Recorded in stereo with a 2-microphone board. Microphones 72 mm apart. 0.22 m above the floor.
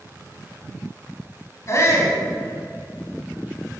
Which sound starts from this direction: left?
A shout, at 1.7 s.